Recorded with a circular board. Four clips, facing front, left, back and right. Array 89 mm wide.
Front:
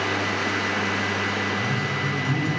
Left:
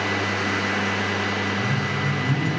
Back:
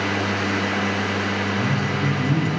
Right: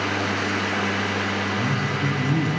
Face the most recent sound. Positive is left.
turn(degrees=-135)